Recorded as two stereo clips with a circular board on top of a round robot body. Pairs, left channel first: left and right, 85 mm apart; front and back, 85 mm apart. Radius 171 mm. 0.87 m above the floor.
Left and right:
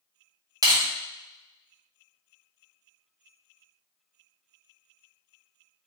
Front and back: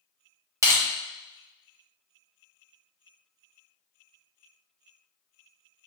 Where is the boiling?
No boiling in this recording.